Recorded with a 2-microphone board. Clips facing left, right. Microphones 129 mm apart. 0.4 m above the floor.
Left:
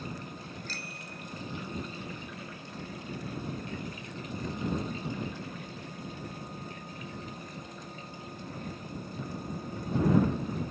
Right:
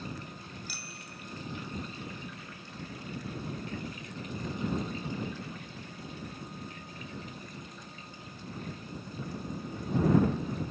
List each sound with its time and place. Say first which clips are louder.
0.7 s a bicycle bell: left 3 dB; 10° right (ahead or behind)